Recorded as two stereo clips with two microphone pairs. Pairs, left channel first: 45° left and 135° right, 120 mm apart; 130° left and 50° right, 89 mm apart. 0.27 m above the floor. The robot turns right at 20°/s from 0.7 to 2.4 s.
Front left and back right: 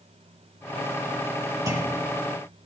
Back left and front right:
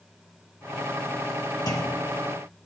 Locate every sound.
1.7 s a clunk: 165° left, 2 m; by 2.1 s 175° left, 2 m